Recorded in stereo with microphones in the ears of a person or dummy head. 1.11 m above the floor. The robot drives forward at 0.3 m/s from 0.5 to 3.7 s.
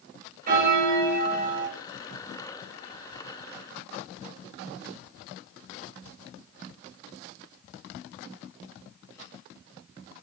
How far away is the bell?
About 1.9 m.